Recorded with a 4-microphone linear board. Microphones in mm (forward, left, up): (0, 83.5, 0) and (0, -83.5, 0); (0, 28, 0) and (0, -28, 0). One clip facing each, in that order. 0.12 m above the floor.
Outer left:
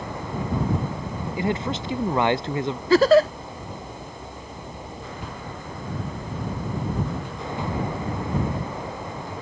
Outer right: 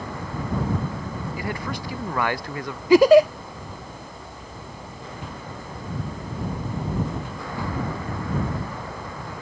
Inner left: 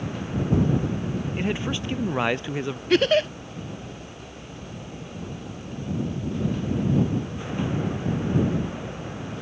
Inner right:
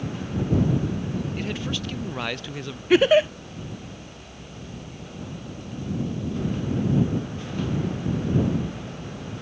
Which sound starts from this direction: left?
A man speaking, at 1.4 s.